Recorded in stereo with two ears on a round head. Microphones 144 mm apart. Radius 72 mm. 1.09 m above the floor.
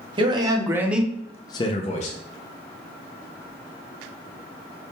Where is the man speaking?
30° right (ahead or behind), 0.8 m; by 2.1 s 45° left (ahead or behind), 0.6 m.